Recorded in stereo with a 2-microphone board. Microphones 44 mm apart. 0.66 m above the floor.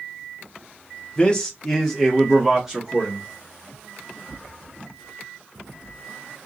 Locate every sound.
1.2 s a man speaking: 20° left (ahead or behind), 0.8 m; by 3.2 s 20° right (ahead or behind), 1.2 m